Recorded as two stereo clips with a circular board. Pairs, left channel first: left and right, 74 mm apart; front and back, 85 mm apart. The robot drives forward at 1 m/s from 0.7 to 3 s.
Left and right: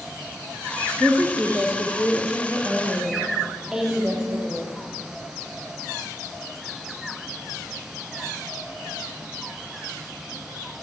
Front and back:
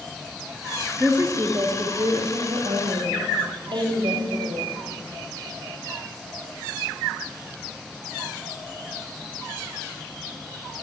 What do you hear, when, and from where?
1.0 s a woman speaking: 135° right, 1.1 m; by 4.7 s 170° right, 2.5 m